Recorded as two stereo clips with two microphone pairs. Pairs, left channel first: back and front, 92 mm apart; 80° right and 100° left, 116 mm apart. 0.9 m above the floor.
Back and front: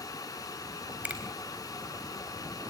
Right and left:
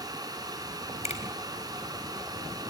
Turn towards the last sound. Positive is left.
turn(degrees=-75)